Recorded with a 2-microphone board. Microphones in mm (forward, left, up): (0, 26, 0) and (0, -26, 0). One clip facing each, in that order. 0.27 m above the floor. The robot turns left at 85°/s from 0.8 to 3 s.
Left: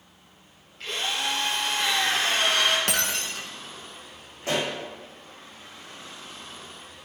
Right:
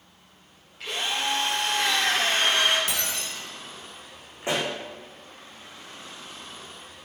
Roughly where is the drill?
Ahead.